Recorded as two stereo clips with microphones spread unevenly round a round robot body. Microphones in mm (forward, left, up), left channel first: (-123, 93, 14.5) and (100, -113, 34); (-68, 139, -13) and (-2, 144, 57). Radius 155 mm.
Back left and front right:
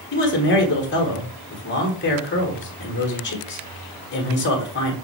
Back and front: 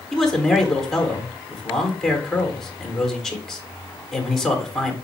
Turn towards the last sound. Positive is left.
turn(degrees=175)